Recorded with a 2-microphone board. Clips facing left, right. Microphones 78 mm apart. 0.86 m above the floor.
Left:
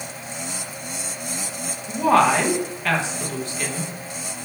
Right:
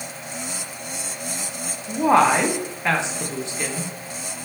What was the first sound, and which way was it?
A woman speaking, 20° right (ahead or behind).